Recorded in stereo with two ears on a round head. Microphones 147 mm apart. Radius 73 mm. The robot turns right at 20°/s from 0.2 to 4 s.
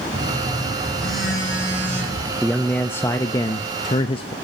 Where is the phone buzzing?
155° left, 8.5 m; by 2.3 s 160° right, 8.5 m.